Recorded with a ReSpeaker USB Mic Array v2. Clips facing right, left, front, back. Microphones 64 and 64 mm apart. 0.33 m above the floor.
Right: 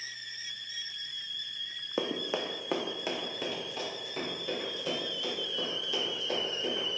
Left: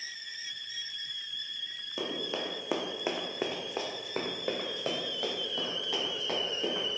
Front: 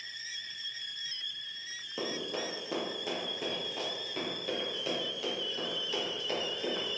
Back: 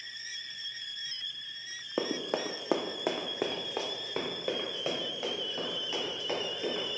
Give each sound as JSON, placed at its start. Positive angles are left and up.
{"t": 2.0, "sound": "running footsteps", "azimuth_deg": -140, "distance_m": 0.9}